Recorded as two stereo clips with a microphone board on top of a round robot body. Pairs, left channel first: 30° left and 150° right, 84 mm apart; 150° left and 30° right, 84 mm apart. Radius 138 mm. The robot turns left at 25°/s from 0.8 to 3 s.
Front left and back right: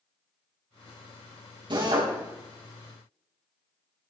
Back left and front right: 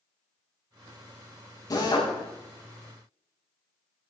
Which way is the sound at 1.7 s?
170° right.